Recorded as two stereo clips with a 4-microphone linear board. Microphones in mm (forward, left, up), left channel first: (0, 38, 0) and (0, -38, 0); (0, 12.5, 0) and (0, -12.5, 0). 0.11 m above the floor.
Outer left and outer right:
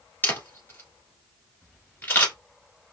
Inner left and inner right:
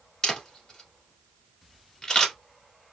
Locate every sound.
0.2 s a camera shutter: 30° left (ahead or behind), 1.4 m